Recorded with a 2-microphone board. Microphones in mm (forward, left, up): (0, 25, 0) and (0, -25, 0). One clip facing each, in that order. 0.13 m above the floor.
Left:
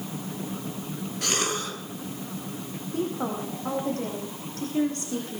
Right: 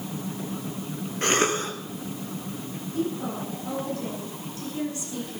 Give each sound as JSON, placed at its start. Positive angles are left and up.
{"t": 1.2, "sound": "a cough", "side_deg": -35, "distance_m": 2.5}
{"t": 2.9, "sound": "a woman speaking", "side_deg": 55, "distance_m": 6.0}